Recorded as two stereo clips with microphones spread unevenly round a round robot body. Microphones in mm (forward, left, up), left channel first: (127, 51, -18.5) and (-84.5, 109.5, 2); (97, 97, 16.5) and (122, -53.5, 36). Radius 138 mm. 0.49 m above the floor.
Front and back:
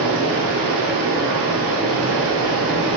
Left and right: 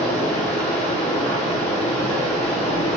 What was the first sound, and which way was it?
Running water, 165° left.